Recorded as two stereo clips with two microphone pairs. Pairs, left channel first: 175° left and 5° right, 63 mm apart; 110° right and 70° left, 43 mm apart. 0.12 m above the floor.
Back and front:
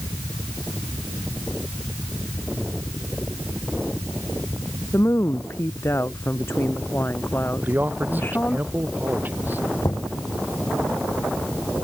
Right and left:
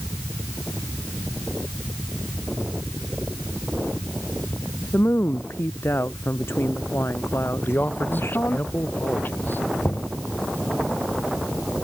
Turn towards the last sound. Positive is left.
turn(degrees=-150)